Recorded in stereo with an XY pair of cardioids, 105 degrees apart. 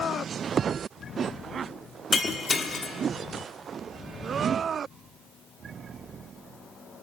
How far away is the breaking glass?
About 1.2 m.